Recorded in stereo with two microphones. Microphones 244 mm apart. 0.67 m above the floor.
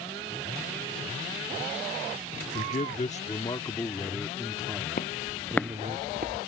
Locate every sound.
2.5 s a man speaking: 40° left (ahead or behind); by 6.0 s 30° right (ahead or behind)
5.0 s footsteps: 40° left (ahead or behind); by 6.4 s 45° right (ahead or behind)